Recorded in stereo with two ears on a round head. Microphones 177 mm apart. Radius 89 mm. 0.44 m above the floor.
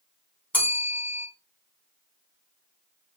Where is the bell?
10° left (ahead or behind), 2.0 m.